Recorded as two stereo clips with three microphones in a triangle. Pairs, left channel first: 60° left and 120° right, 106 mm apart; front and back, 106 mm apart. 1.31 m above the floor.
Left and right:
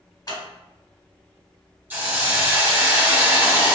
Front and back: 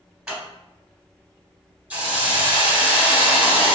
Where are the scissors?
100° left, 1.5 m.